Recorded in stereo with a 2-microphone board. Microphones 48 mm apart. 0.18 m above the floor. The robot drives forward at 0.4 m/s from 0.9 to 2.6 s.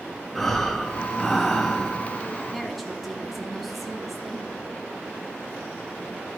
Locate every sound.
0.3 s breathing: 5° left (ahead or behind), 1.5 m
2.5 s a woman speaking: centre (ahead or behind), 1.3 m